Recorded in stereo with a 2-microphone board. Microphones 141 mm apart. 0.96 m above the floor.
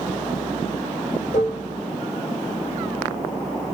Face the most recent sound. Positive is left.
turn(degrees=55)  # may be behind; listen again after turning